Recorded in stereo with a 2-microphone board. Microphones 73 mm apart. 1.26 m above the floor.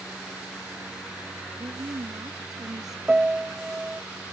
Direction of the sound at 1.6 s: 65° right (ahead or behind).